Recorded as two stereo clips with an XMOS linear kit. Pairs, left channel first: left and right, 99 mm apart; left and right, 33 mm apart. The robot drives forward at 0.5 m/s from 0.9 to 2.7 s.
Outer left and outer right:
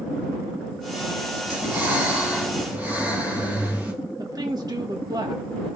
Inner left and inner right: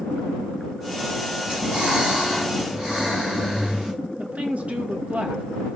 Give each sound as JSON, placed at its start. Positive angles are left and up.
{"t": 1.5, "sound": "breathing", "side_deg": -20, "distance_m": 5.5}
{"t": 4.2, "sound": "a woman speaking", "side_deg": -40, "distance_m": 2.0}